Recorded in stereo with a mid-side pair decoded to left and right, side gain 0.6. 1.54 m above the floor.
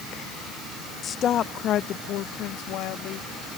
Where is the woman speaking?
40° left; by 3.3 s 70° left.